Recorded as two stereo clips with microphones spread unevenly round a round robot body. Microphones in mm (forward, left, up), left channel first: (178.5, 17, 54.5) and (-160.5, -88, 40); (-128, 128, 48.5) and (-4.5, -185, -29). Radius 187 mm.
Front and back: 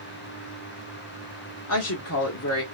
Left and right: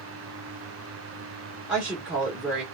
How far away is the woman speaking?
About 0.8 m.